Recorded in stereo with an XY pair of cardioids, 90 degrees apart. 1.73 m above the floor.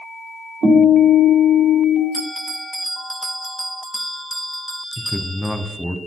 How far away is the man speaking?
About 1.2 m.